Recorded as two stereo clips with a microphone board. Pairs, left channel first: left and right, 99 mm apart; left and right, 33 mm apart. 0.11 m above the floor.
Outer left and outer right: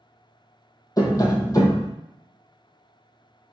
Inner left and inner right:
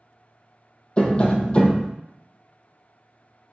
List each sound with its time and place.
1.0 s tapping: 40° left (ahead or behind), 0.5 m